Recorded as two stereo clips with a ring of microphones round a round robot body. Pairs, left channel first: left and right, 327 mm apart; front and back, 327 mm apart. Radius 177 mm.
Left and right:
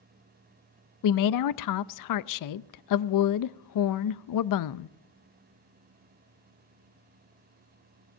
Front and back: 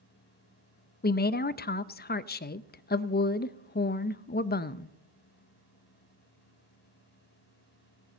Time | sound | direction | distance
1.0 | a woman speaking | 65° left | 0.6 m